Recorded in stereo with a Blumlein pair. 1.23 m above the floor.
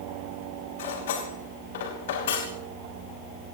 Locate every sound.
0.8 s cutlery clinking: 60° left, 5 m